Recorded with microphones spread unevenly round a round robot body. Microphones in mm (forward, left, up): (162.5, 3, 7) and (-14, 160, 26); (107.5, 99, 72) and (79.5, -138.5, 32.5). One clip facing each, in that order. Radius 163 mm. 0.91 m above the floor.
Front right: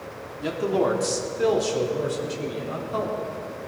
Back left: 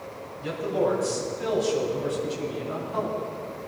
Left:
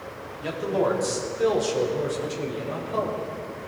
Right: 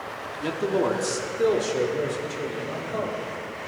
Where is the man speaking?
70° right, 2 m; by 3.7 s 10° right, 6 m.